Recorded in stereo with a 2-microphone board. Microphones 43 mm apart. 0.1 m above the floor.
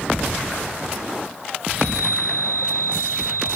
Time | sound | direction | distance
1.7 | a chime | 50° right (ahead or behind) | 10 m